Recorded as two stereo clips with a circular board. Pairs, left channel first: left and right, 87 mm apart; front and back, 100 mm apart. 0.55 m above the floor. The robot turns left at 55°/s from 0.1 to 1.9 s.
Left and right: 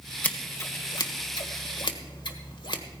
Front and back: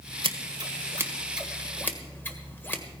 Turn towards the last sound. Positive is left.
turn(degrees=70)